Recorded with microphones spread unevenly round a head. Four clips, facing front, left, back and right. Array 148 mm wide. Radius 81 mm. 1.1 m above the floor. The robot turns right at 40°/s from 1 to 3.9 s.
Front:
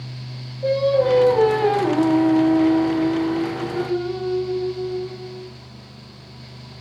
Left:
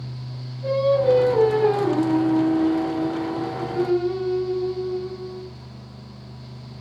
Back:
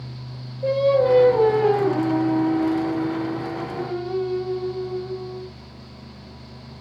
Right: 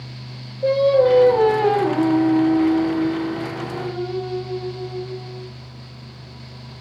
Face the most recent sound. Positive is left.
turn(degrees=25)